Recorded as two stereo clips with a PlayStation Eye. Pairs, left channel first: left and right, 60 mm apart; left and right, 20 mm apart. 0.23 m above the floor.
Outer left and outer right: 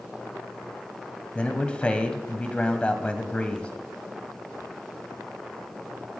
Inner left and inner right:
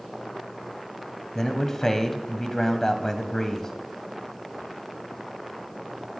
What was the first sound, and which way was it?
A man speaking, 20° left (ahead or behind).